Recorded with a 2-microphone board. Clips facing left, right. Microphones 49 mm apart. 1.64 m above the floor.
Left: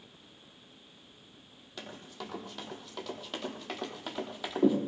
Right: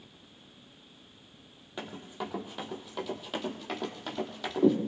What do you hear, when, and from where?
1.8 s running footsteps: 20° right (ahead or behind), 3 m; by 4.8 s 10° left (ahead or behind), 3 m